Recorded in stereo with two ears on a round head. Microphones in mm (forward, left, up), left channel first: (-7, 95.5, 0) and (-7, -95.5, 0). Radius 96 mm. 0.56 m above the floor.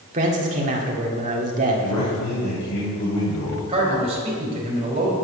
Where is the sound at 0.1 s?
35° right (ahead or behind), 1.6 m.